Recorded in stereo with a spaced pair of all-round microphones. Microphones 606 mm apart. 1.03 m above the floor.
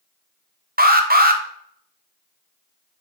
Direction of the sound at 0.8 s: 15° right (ahead or behind).